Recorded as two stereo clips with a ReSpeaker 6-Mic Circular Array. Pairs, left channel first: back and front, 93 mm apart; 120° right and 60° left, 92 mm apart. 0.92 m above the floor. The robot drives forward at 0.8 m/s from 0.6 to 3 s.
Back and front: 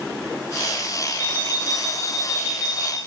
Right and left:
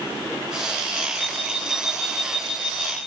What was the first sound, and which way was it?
An alarm clock, 125° right.